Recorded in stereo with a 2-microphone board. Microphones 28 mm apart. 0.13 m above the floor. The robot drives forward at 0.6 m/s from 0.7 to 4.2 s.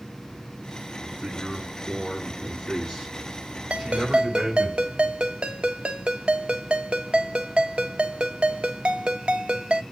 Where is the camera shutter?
I don't hear a camera shutter.